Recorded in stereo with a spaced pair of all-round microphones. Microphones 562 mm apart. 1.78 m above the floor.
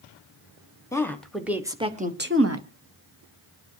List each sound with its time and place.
0.9 s a woman speaking: 5° left (ahead or behind), 1.9 m; by 2.6 s 30° right (ahead or behind), 1.1 m